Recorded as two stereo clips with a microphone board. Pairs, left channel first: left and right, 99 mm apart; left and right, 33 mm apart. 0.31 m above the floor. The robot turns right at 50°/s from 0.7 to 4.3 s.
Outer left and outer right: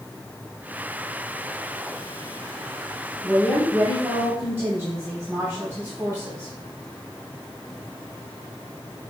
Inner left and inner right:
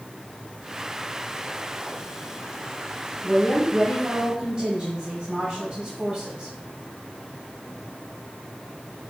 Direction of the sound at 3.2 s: Straight behind.